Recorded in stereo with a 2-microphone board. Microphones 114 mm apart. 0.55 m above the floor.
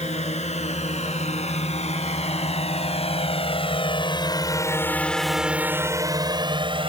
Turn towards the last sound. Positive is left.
turn(degrees=-50)  # may be behind; listen again after turning